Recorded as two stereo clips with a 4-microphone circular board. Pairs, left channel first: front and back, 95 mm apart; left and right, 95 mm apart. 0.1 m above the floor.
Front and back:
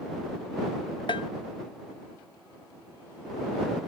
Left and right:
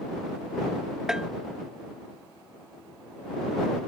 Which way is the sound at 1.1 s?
5° right.